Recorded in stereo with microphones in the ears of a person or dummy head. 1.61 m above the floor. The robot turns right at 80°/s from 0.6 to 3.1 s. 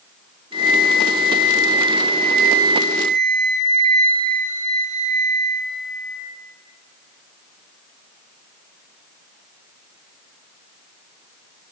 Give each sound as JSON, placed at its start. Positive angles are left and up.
{"t": 0.5, "sound": "a flute", "azimuth_deg": 30, "distance_m": 1.4}